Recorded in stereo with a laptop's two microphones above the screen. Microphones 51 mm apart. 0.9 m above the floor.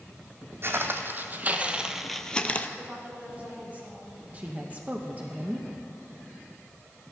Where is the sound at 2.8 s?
30° right (ahead or behind), 3 m.